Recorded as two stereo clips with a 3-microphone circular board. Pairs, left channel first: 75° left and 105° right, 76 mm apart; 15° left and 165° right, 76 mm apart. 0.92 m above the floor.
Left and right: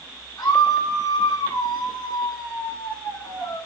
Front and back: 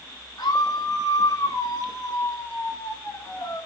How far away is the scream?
About 8 m.